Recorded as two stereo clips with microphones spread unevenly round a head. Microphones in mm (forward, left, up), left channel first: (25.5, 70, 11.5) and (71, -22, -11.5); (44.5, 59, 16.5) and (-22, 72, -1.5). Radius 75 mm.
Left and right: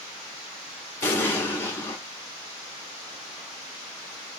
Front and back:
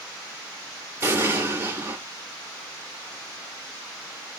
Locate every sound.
1.0 s an explosion: 115° left, 1.0 m